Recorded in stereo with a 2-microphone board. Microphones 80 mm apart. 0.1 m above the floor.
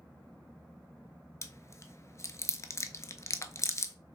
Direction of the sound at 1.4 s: 40° left (ahead or behind).